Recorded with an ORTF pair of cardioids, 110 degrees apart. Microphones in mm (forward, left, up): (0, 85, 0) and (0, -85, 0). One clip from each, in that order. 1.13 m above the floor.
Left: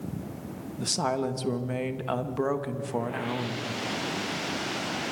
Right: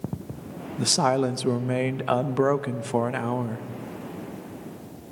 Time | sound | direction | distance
0.8 | a woman speaking | 30° right | 0.9 m